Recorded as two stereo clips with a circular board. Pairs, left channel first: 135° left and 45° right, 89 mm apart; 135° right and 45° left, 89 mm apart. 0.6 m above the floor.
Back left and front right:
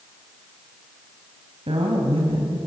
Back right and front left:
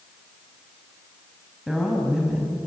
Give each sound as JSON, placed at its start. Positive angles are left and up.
{"t": 1.7, "sound": "a woman speaking", "azimuth_deg": -40, "distance_m": 3.5}